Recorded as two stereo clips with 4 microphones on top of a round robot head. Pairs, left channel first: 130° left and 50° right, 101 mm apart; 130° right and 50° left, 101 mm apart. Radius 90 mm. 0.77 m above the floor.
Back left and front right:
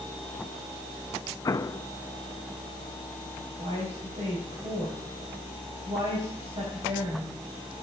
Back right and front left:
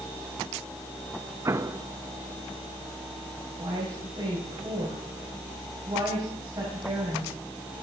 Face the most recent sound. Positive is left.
turn(degrees=-10)